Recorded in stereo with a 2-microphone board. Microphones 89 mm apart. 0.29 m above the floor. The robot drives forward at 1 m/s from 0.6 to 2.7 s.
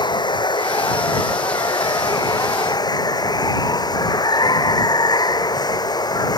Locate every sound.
0.0 s running water: 55° left (ahead or behind); by 6.4 s 50° left (ahead or behind)